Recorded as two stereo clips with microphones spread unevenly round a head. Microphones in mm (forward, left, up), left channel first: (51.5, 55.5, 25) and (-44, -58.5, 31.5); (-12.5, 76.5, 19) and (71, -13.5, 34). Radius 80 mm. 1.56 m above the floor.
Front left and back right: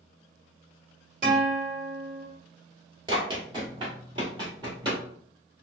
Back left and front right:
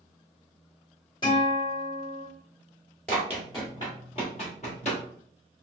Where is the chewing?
No chewing in this recording.